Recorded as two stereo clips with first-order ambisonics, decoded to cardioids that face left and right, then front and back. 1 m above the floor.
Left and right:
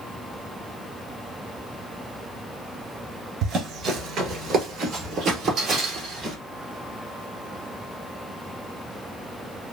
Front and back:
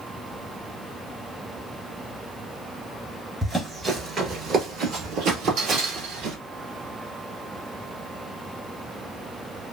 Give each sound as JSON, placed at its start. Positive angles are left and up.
{"t": 3.4, "sound": "running footsteps", "azimuth_deg": -100, "distance_m": 1.1}